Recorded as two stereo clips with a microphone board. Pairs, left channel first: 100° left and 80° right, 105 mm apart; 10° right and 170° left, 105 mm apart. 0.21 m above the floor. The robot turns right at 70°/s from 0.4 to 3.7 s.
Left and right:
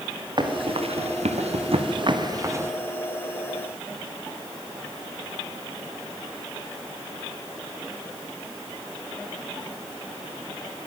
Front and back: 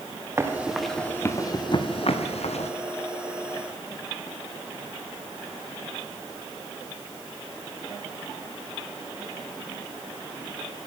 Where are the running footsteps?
125° right, 3.5 m; by 2.7 s 10° right, 2.5 m.